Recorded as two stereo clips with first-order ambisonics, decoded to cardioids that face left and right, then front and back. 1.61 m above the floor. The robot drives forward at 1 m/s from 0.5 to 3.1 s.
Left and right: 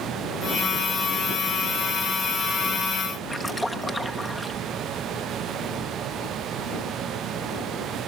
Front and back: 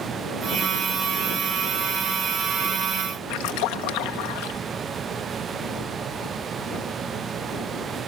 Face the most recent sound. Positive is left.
turn(degrees=0)